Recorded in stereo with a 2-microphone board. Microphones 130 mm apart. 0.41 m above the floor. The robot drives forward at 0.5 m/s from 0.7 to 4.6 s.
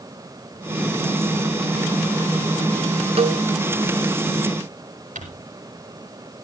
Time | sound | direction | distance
3.2 | a cowbell | 50° right (ahead or behind) | 0.9 m
5.2 | crumpling | 75° right (ahead or behind) | 6.5 m